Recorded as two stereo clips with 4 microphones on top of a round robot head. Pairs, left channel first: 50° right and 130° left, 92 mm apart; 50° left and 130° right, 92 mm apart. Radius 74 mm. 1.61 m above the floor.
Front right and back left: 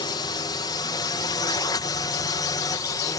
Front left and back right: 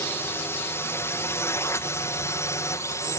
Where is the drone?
10° right; by 3.2 s 5° right.